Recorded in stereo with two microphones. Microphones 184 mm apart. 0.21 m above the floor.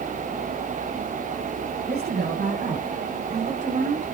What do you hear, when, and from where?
1.9 s a woman speaking: 60° right (ahead or behind), 2 m; by 4.0 s 40° right (ahead or behind), 5 m